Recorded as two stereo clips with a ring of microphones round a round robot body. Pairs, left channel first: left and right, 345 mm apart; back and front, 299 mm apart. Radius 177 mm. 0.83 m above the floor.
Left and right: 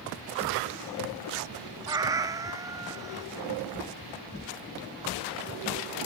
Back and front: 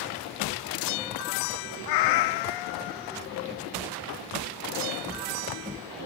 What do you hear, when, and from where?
1.9 s a cat meowing: 170° right